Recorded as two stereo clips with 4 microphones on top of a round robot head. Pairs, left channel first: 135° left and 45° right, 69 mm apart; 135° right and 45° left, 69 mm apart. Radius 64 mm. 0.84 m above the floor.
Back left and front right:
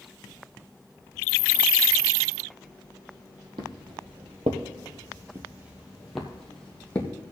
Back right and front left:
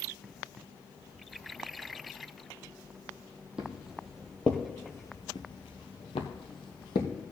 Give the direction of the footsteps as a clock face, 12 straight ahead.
1 o'clock.